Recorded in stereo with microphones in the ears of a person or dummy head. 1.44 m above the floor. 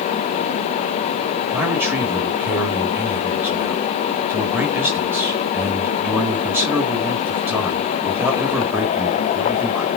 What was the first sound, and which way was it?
A man speaking, 10° right (ahead or behind).